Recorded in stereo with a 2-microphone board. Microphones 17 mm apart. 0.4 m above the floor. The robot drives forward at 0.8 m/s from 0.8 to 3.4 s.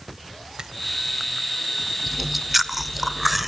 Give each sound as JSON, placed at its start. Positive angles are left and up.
{"t": 0.6, "sound": "a finger snap", "side_deg": -45, "distance_m": 1.7}
{"t": 2.1, "sound": "chewing", "side_deg": -5, "distance_m": 1.1}